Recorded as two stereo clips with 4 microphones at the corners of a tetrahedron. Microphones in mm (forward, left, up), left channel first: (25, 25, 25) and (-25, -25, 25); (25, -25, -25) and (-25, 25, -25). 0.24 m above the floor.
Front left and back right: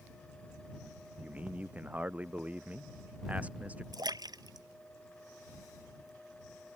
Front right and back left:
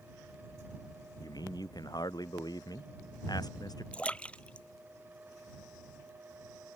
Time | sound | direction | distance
1.2 | a man speaking | 65° right | ?
3.9 | a splash | 120° right | ?